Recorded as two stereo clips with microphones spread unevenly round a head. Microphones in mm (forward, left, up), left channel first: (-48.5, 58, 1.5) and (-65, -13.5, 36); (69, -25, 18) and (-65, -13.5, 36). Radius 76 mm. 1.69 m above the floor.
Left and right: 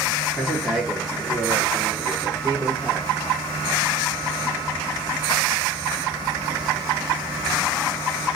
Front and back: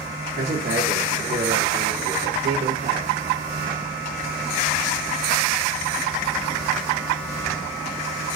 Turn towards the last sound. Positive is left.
turn(degrees=-175)